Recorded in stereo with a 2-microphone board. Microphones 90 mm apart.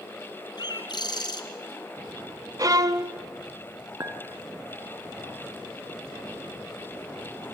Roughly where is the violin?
Right.